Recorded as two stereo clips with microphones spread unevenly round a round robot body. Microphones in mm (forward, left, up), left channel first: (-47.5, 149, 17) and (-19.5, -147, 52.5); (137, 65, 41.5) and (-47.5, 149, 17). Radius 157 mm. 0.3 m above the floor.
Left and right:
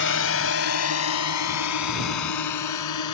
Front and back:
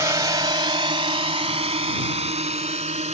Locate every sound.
0.0 s a drone: 90° left; by 3.1 s 100° left